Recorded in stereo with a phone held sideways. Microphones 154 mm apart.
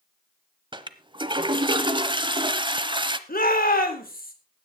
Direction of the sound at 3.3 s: 70° left (ahead or behind).